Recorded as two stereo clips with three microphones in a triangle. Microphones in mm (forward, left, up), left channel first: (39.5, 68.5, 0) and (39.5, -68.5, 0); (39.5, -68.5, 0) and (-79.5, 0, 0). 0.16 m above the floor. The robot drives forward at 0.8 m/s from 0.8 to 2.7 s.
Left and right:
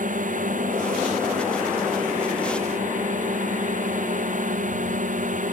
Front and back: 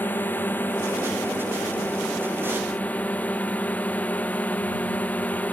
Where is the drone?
105° right; by 5.5 s 110° right.